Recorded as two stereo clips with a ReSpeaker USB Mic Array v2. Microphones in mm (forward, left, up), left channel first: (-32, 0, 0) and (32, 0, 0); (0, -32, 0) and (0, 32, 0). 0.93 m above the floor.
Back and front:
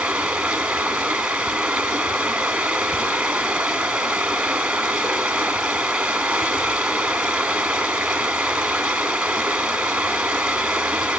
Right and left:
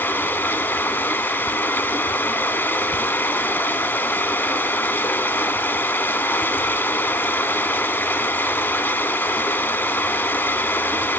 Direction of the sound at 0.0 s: 65° right.